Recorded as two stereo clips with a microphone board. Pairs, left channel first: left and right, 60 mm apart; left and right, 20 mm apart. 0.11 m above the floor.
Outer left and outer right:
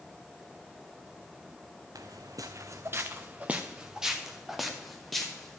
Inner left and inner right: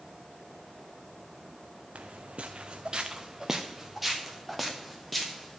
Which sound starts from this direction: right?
Footsteps, at 1.9 s.